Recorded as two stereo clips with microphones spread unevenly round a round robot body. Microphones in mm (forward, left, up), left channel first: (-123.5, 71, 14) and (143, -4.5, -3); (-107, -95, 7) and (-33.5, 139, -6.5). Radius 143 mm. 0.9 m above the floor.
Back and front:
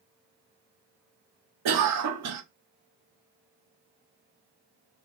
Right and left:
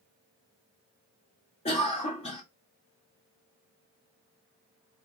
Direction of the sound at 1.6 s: 40° right.